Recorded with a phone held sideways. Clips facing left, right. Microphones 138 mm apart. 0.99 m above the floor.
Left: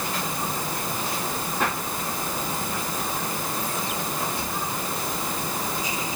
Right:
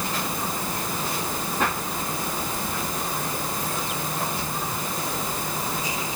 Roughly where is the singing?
No singing in this recording.